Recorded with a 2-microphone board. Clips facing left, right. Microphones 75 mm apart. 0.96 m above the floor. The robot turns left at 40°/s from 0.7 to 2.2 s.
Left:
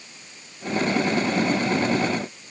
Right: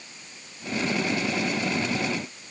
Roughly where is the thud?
No thud in this recording.